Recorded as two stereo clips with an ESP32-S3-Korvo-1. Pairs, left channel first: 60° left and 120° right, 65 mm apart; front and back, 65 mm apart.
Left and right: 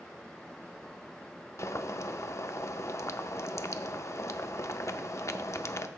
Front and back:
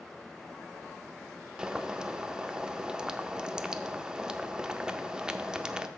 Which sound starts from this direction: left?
Boiling, at 1.6 s.